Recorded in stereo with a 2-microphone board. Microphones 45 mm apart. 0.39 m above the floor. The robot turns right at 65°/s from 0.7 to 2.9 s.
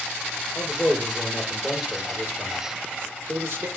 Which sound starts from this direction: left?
A man speaking, at 0.6 s.